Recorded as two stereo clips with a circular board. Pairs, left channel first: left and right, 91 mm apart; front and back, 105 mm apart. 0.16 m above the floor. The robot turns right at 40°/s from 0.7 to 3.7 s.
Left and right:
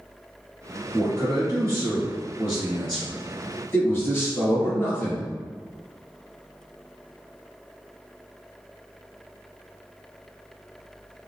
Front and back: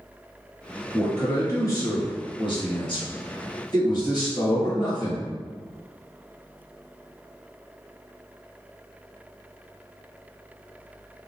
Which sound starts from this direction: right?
A man speaking, at 0.9 s.